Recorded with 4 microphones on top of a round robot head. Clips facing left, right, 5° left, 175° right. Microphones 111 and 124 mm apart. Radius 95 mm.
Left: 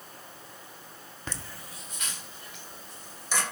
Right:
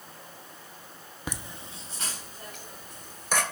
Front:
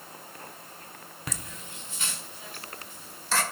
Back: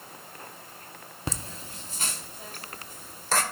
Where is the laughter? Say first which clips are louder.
Right 3 dB, back 5 dB; 155° right, 0.7 m; by 3.4 s 130° right, 1.6 m.